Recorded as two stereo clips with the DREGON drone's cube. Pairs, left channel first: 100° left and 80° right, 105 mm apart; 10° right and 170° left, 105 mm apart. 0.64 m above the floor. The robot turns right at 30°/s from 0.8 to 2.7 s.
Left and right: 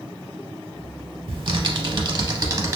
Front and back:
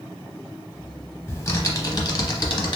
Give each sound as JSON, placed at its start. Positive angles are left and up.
{"t": 1.3, "sound": "typing on a keyboard", "azimuth_deg": -65, "distance_m": 0.6}